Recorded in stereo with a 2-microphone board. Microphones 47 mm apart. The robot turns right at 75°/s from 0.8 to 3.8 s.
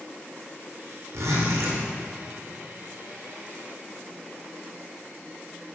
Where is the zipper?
115° right, 2.5 m; by 1.8 s 65° right, 2.5 m.